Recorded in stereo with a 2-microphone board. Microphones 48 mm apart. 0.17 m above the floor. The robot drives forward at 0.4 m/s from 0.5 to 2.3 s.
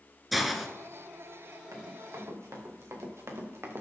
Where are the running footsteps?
80° right, 3.5 m; by 3.8 s 50° right (ahead or behind), 2 m.